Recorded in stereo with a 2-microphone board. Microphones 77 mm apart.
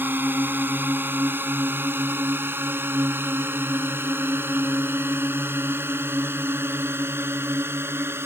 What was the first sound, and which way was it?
A drone, 25° right (ahead or behind).